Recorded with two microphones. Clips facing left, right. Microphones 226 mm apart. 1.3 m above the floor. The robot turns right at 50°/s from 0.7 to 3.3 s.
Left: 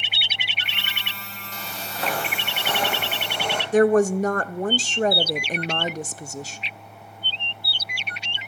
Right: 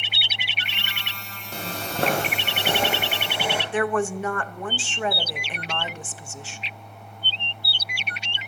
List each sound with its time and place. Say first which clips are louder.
1.5 s footsteps: right 7 dB; 55° right (ahead or behind), 2 m; by 3.6 s 5° right (ahead or behind), 3 m
3.7 s a woman speaking: left 9 dB; 40° left (ahead or behind), 0.5 m